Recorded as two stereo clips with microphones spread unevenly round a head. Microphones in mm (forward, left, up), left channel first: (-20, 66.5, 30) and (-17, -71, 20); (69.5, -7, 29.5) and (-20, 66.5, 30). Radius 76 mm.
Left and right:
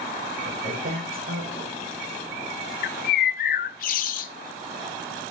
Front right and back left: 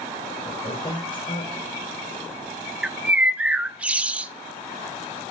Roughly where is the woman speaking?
Right.